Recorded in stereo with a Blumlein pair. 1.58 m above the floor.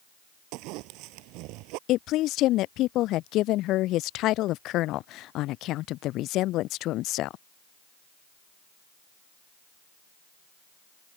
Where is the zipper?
40° right.